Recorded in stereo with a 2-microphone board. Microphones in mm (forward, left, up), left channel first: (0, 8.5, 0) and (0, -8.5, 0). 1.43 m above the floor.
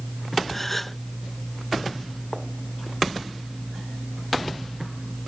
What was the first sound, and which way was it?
A gasp, 10° left (ahead or behind).